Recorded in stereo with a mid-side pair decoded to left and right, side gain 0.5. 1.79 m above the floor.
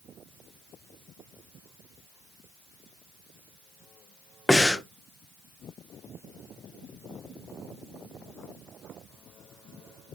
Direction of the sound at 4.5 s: 10° left.